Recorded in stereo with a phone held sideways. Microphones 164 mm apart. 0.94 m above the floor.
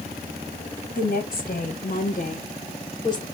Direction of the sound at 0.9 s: 55° left (ahead or behind).